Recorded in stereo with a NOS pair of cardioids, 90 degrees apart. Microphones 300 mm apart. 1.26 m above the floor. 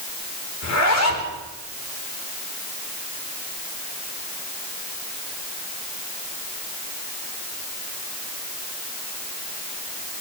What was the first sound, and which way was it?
A zipper, 55° left.